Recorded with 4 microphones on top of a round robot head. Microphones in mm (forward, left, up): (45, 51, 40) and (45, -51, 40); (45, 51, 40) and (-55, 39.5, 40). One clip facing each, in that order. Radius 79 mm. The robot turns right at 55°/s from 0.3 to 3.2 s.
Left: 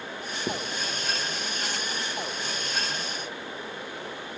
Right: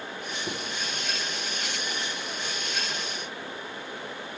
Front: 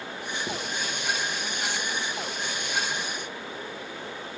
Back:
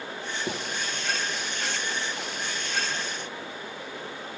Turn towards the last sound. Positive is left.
turn(degrees=-95)